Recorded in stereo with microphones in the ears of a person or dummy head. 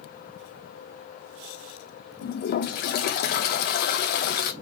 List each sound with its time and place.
2.2 s a toilet flushing: 50° left (ahead or behind), 0.5 m